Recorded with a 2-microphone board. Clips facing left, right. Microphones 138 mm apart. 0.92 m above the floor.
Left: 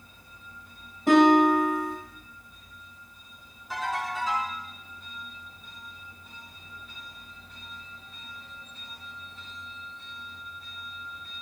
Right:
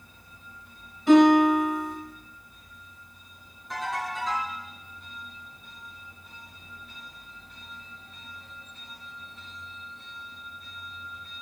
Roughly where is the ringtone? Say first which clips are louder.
Left 1 dB; centre.